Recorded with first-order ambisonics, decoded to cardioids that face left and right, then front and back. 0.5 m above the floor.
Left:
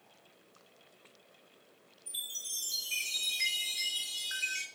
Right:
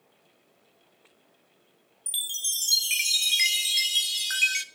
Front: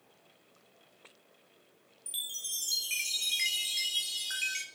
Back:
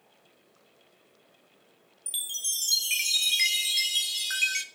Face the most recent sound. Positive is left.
turn(degrees=-110)